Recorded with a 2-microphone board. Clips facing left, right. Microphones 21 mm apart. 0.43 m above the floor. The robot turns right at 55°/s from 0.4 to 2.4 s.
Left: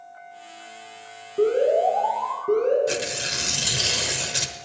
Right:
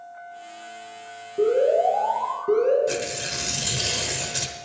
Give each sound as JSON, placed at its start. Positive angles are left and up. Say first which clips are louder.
{"t": 1.4, "sound": "an alarm", "louder": "even", "azimuth_deg": 145, "distance_m": 4.0}
{"t": 2.9, "sound": "tearing paper", "louder": "left 1 dB", "side_deg": 20, "distance_m": 1.0}